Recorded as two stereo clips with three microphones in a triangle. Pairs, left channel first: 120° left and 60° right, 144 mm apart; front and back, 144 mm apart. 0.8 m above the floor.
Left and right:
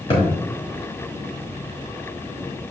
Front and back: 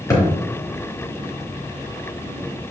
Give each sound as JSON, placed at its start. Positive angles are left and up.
{"t": 0.1, "sound": "a thud", "azimuth_deg": 70, "distance_m": 3.5}